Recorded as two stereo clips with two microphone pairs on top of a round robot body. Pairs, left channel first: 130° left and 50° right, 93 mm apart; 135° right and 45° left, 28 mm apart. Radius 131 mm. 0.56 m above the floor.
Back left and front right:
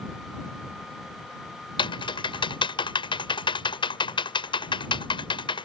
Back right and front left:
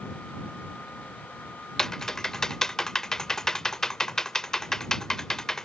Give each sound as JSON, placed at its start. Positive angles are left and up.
{"t": 1.8, "sound": "typing on a keyboard", "azimuth_deg": 150}